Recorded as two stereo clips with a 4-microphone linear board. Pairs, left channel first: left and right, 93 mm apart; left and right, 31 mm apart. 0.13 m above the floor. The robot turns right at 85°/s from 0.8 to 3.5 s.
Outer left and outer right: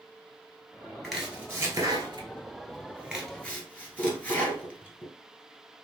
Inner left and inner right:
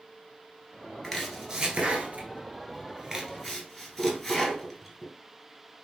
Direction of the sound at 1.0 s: 10° left (ahead or behind).